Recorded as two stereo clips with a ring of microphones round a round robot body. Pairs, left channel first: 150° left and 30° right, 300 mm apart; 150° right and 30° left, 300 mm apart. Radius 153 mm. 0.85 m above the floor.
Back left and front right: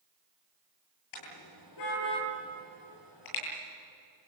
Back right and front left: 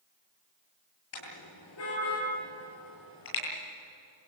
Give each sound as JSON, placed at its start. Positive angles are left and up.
{"t": 1.1, "sound": "a car horn", "azimuth_deg": 170, "distance_m": 10.0}